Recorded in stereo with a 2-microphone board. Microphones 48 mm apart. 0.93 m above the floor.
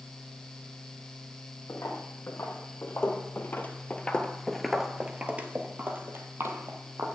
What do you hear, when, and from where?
1.7 s footsteps: 65° left (ahead or behind), 2 m; by 7.2 s 60° right (ahead or behind), 1.8 m